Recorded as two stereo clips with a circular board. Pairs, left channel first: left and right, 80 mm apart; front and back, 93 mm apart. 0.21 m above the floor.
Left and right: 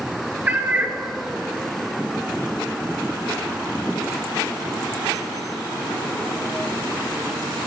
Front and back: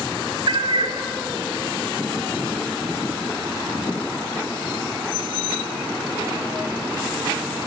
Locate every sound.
0.5 s a cat meowing: 155° right, 0.6 m